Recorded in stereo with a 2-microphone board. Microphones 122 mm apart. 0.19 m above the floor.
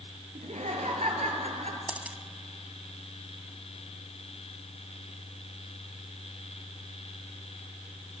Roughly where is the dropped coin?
Centre.